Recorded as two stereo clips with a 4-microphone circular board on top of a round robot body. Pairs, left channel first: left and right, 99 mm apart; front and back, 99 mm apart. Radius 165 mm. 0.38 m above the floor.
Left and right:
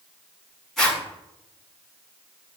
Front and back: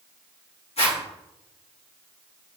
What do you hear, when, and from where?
0.8 s a zipper: 5° left, 6 m